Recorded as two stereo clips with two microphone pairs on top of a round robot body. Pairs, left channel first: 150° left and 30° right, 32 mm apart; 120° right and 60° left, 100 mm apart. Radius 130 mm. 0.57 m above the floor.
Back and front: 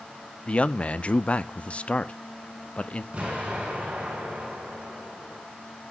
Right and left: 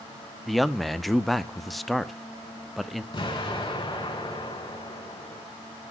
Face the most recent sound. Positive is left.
turn(degrees=-90)